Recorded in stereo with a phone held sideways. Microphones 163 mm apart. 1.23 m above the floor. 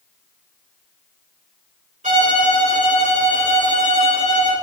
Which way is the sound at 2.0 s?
45° right (ahead or behind).